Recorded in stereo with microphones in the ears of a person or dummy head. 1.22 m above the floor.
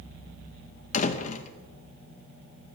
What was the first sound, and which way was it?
A door slam, 40° left (ahead or behind).